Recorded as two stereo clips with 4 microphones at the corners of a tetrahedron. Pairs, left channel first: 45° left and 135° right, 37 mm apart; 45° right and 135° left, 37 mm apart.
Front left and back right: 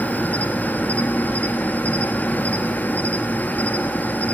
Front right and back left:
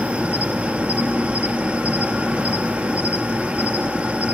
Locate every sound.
0.0 s an insect: 85° left, 1.0 m